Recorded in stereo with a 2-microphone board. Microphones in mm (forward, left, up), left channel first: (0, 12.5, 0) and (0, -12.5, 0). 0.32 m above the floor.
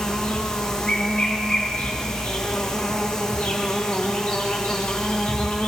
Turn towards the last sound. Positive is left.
turn(degrees=20)  # may be behind; listen again after turning